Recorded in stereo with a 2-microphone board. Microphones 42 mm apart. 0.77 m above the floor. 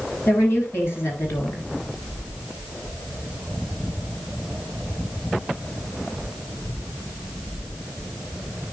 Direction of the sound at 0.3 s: 75° left (ahead or behind).